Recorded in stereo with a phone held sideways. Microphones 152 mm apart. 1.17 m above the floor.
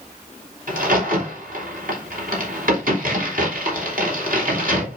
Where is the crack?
70° right (ahead or behind), 4 m.